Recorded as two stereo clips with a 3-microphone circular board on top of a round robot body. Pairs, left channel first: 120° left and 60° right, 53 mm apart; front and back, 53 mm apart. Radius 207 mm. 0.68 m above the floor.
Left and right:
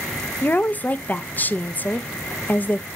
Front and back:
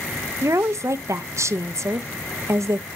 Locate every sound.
0.4 s a woman speaking: 175° left, 0.8 m